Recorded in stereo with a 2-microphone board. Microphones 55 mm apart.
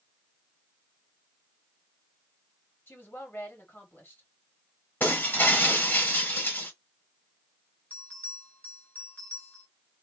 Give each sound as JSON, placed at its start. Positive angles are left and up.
{"t": 2.9, "sound": "a woman speaking", "side_deg": 45, "distance_m": 1.4}
{"t": 5.0, "sound": "breaking glass", "side_deg": 35, "distance_m": 1.2}
{"t": 7.9, "sound": "a bell", "side_deg": 30, "distance_m": 1.4}